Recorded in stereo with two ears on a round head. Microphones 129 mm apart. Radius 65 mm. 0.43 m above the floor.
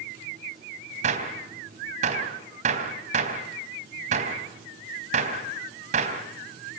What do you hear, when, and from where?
1.0 s a gunshot: 50° right (ahead or behind), 3.5 m